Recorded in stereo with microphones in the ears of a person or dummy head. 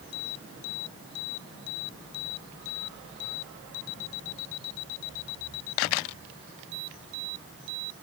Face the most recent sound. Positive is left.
No sound to turn to.